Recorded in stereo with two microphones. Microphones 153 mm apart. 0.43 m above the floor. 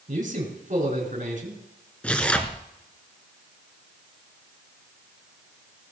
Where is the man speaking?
55° right (ahead or behind), 5.5 m.